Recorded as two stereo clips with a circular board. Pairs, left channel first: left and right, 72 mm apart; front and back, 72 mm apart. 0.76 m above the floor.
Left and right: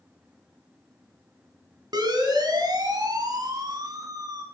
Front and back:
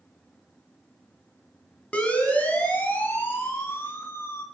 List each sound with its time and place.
1.9 s a siren: 75° right, 5.5 m; by 4.4 s 55° right, 6 m